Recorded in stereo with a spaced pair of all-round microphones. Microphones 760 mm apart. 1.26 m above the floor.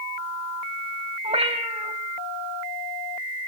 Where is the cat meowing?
10° right (ahead or behind), 4 m.